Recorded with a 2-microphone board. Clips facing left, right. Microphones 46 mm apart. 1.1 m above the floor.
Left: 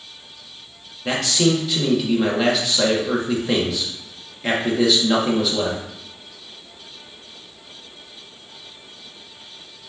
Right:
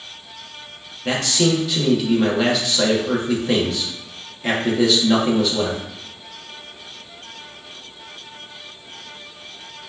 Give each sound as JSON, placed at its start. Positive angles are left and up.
{"t": 1.1, "sound": "a man speaking", "side_deg": 0, "distance_m": 1.0}